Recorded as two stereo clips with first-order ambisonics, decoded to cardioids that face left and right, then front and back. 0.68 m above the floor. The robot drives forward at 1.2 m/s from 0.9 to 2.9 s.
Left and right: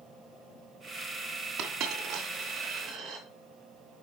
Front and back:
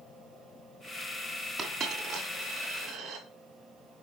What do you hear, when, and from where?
1.6 s a dropped coin: 125° right, 2 m; by 3.3 s 150° right, 3 m